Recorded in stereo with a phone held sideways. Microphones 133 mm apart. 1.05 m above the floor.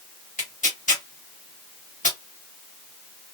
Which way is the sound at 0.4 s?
80° left.